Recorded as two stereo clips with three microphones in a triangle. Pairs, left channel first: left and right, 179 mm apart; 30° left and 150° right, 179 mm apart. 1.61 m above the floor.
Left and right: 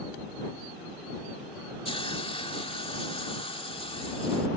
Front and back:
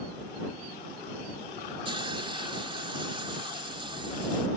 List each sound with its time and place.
1.9 s a hiss: 150° left